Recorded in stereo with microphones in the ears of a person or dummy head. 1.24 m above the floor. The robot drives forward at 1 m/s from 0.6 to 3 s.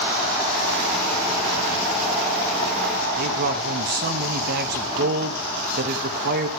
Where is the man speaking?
55° right (ahead or behind), 1.4 m.